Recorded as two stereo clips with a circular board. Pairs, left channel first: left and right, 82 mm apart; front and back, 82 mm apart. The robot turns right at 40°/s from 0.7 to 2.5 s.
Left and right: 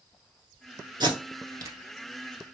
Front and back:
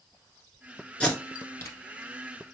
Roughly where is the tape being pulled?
Right.